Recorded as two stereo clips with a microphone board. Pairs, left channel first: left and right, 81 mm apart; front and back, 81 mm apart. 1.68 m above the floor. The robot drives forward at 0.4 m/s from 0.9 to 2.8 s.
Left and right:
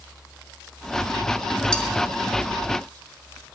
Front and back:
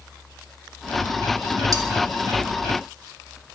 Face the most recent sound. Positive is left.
turn(degrees=170)